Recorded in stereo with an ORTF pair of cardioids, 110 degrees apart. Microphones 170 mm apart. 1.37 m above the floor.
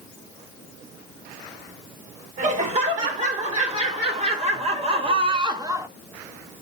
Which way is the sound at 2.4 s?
45° right.